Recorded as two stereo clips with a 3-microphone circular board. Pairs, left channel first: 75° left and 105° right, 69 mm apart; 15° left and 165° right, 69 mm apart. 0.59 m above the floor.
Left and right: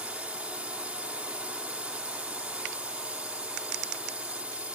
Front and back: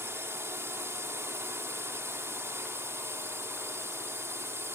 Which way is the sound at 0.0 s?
160° right.